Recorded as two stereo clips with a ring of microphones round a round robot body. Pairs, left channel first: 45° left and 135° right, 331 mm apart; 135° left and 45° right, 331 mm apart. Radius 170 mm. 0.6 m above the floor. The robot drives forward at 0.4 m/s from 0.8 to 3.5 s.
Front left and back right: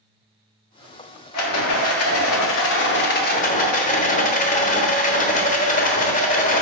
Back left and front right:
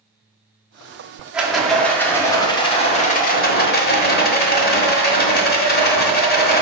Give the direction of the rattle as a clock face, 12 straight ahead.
11 o'clock.